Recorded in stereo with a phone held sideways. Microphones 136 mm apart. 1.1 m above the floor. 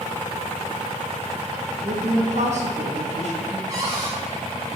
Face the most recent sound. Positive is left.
turn(degrees=-25)  # may be behind; listen again after turning